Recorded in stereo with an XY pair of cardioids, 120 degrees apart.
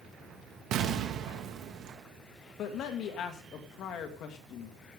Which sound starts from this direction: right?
An explosion, at 0.7 s.